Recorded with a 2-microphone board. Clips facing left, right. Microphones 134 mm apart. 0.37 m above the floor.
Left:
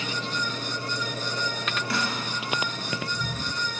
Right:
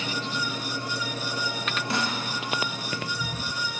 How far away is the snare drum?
About 0.6 m.